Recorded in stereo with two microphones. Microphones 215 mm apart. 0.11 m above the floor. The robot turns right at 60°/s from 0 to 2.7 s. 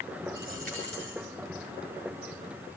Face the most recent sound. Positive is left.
turn(degrees=75)